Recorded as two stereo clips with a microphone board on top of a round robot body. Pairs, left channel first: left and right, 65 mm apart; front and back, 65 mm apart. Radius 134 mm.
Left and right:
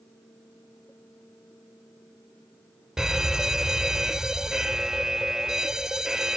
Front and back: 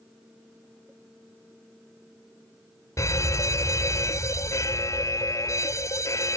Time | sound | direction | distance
3.0 | a fire alarm | 10° right | ?